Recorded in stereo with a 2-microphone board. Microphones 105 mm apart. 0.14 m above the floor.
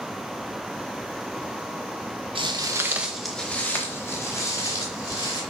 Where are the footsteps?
55° right (ahead or behind), 1.1 m; by 5.4 s 35° left (ahead or behind), 3.5 m.